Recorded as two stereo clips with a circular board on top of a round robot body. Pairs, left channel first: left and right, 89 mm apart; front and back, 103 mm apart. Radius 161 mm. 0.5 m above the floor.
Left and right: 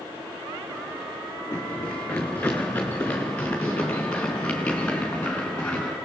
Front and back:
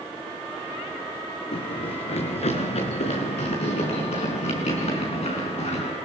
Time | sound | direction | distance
1.5 | running footsteps | 20° left | 3 m